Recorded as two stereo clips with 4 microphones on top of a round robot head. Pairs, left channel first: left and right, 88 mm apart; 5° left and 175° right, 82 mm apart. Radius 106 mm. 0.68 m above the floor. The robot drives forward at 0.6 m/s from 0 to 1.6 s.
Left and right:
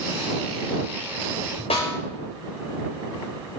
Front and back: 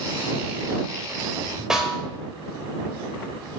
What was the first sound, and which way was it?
A snare drum, 105° left.